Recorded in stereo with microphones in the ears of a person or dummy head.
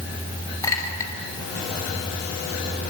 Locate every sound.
0.6 s a clink: 15° left (ahead or behind), 5 m